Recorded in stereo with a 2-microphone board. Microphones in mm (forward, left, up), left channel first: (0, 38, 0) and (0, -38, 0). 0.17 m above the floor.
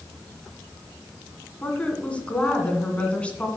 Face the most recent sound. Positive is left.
turn(degrees=15)  # may be behind; listen again after turning